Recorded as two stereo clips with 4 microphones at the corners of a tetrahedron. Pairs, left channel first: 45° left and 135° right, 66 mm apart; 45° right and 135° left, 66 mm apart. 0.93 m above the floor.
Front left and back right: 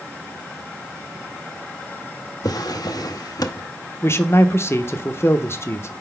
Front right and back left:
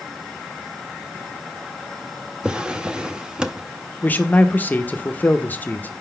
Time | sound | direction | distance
2.4 | a drawer | 60° left | 0.6 m
4.0 | a man speaking | 10° left | 0.6 m